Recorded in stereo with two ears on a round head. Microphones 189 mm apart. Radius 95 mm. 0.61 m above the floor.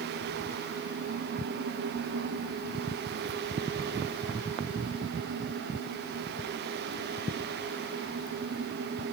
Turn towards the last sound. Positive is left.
No sound to turn to.